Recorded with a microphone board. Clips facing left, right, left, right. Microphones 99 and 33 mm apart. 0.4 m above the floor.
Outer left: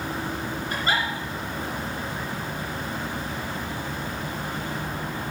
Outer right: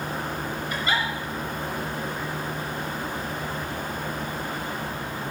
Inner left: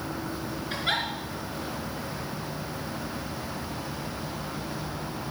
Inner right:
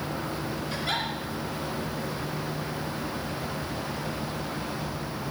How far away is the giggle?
About 3.5 m.